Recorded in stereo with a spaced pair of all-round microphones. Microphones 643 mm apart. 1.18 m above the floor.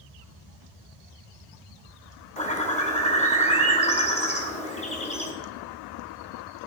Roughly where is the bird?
Centre.